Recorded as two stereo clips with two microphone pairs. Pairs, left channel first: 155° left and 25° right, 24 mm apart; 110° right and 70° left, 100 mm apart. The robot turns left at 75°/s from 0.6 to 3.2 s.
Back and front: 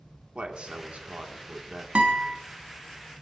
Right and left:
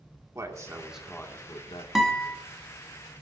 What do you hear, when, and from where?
0.3 s a man speaking: 10° left, 1.9 m; by 1.9 s 85° right, 1.9 m
1.9 s a guitar: 15° right, 1.8 m; by 2.4 s 50° right, 1.8 m